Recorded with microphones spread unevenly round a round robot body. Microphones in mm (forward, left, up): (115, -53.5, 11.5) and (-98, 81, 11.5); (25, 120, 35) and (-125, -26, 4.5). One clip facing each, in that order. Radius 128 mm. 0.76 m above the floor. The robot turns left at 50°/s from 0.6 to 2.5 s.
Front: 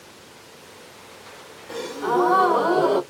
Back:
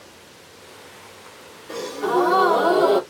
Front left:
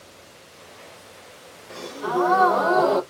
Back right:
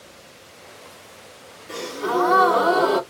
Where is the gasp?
135° right, 2.5 m; by 3.0 s 175° right, 2.5 m.